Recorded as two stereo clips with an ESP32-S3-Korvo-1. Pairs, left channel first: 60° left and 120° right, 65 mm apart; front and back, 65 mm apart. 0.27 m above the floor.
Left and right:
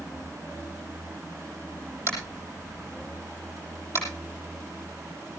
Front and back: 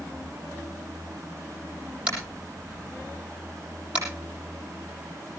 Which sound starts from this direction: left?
Tapping, at 2.1 s.